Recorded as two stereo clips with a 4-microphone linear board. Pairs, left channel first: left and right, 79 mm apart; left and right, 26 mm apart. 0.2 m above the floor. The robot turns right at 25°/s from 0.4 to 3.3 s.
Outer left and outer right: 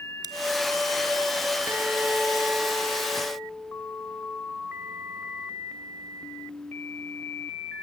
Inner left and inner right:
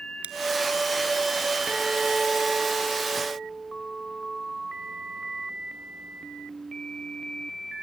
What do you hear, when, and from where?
0.2 s scissors: 55° right (ahead or behind), 1.0 m
1.7 s a guitar: 150° right, 3 m; by 4.4 s 105° right, 3 m